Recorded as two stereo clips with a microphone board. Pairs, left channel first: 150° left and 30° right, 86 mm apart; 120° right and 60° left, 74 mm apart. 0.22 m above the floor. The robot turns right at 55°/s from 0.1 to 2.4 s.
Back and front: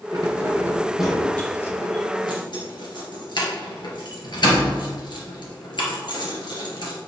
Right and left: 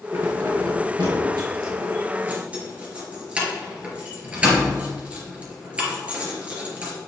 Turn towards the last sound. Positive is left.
turn(degrees=130)